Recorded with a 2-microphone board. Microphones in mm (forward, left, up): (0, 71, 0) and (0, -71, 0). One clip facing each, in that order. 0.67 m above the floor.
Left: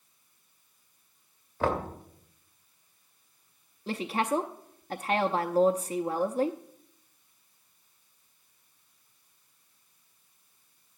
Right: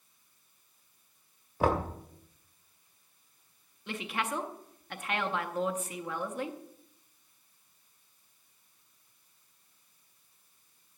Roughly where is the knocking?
Centre.